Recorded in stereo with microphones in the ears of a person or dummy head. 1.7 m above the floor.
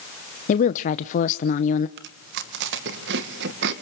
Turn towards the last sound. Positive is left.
turn(degrees=-65)  # may be behind; listen again after turning